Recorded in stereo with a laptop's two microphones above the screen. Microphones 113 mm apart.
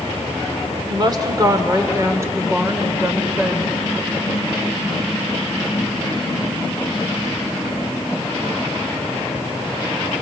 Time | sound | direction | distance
0.9 | a woman speaking | 40° right (ahead or behind) | 2.5 m